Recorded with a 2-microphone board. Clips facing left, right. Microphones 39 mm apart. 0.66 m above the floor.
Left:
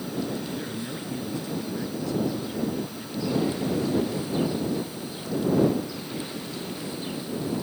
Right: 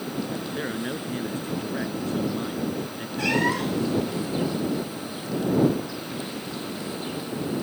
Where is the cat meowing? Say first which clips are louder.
Right 3 dB; 80° right.